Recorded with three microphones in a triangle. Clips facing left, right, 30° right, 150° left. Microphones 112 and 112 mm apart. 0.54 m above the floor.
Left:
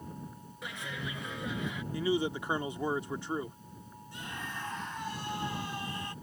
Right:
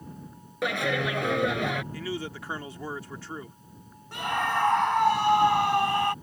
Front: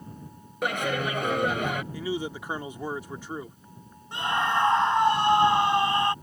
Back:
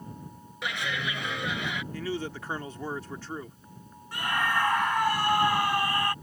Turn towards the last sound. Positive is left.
turn(degrees=-95)